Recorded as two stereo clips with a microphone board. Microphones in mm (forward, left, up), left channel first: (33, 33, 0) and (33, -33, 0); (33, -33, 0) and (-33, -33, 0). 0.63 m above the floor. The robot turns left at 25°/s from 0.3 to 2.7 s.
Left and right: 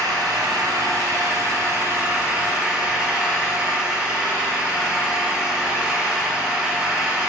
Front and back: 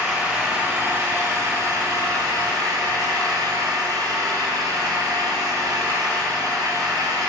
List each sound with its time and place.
0.0 s an engine running: 100° right, 3.5 m; by 7.3 s 160° right, 3.5 m